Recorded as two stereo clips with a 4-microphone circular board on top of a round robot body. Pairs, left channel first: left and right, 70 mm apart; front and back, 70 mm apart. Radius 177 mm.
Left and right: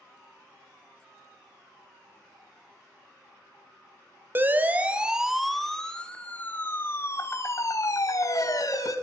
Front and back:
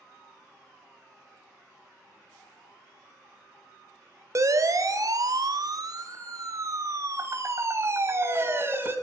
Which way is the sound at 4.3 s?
145° right.